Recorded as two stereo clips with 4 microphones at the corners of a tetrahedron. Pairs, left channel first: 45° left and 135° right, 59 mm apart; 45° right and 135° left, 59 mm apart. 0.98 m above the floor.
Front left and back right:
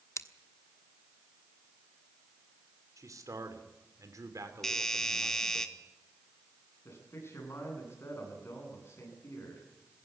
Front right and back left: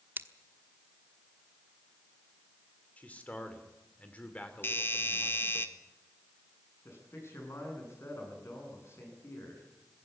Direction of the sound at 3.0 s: 110° right.